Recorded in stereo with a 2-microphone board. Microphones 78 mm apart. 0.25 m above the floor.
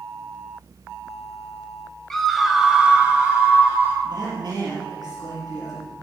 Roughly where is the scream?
Centre.